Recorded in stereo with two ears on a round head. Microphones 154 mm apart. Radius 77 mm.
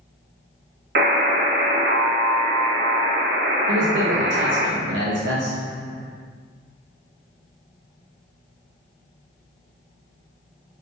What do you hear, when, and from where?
0.9 s a buzzer: 60° right (ahead or behind), 0.5 m
3.7 s a man speaking: 75° right (ahead or behind), 0.6 m